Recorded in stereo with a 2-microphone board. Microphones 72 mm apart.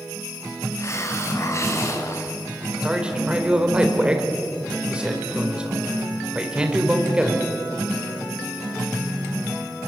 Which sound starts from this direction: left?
A hiss, at 0.8 s.